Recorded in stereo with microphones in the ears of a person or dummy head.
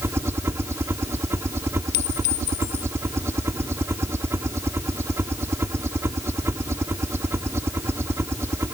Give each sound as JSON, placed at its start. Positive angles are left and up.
{"t": 0.0, "sound": "a helicopter", "side_deg": -10}
{"t": 1.9, "sound": "a clink", "side_deg": 65}